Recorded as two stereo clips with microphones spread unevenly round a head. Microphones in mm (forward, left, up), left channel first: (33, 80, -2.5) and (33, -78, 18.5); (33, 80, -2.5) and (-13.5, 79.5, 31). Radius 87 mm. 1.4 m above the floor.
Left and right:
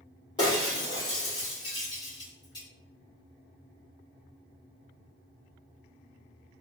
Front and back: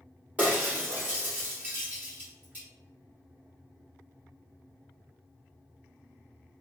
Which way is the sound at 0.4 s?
160° left.